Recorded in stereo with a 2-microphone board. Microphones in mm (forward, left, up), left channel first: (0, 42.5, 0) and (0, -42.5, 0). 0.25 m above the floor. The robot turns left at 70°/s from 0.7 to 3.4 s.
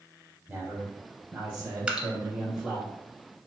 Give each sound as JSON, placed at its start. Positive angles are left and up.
{"t": 0.5, "sound": "a man speaking", "side_deg": -10, "distance_m": 1.0}
{"t": 1.9, "sound": "dripping", "side_deg": -15, "distance_m": 0.5}